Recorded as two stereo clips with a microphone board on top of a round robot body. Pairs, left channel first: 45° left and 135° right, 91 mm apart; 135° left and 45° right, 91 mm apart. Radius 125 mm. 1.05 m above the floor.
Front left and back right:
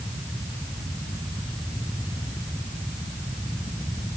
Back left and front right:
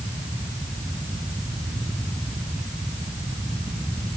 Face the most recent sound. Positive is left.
No sound to turn to.